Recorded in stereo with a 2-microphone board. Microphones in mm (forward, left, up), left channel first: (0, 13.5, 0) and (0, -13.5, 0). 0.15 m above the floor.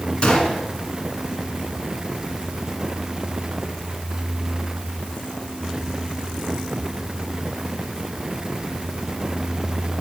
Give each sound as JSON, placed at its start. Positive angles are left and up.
{"t": 0.2, "sound": "a gunshot", "side_deg": 40, "distance_m": 0.9}